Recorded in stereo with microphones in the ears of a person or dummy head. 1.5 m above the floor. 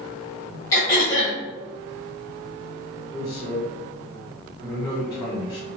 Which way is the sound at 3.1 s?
15° left (ahead or behind).